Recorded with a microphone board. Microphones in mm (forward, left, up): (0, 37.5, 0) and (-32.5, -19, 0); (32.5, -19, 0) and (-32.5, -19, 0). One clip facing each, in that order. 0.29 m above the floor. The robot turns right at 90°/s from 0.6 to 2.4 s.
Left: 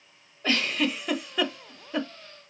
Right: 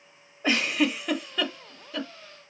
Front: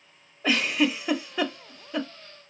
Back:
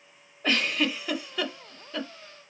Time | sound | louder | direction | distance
0.4 | a giggle | right 2 dB, front 3 dB | 70° right | 0.5 m